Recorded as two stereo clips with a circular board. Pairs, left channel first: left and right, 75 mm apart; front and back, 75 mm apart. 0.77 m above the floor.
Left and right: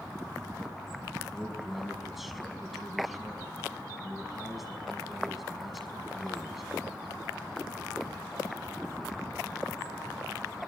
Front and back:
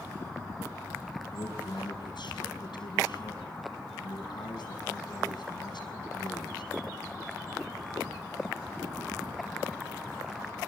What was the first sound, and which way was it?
A man speaking, straight ahead.